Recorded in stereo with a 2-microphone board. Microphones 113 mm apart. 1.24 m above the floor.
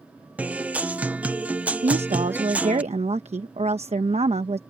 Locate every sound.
0.4 s a guitar: 15° right (ahead or behind)
1.8 s a woman speaking: 70° right (ahead or behind)